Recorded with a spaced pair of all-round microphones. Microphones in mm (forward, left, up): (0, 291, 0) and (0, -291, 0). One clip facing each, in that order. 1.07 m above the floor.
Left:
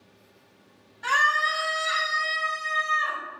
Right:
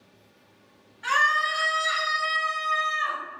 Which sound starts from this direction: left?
A scream, at 1.0 s.